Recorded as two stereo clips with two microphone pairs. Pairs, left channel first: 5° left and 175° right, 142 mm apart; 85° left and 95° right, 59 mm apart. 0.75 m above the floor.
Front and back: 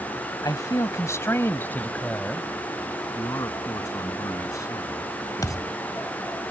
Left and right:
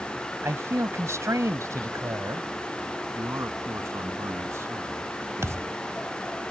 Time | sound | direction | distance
0.4 | a man speaking | 55° right | ?
3.1 | a man speaking | 60° right | ?
5.4 | a thud | 60° right | ?